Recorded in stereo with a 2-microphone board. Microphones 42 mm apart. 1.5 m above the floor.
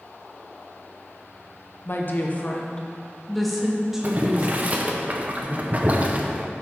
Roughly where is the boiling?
Right.